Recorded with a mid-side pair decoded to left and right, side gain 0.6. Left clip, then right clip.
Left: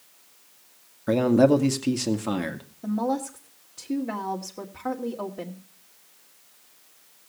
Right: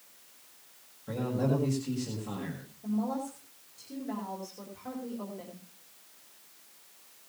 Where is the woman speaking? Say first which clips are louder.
Left 7 dB; 60° left, 2.5 m.